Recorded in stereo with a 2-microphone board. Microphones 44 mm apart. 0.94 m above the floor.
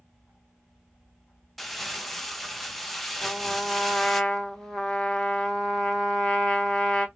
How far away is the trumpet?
About 0.9 m.